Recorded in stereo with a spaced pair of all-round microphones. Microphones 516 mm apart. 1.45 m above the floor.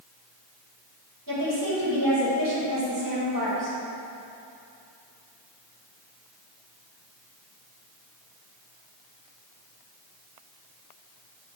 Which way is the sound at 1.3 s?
40° right (ahead or behind).